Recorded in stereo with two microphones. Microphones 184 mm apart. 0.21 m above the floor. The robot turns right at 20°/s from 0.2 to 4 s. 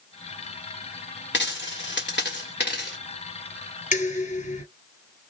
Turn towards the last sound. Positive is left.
turn(degrees=40)  # may be behind; listen again after turning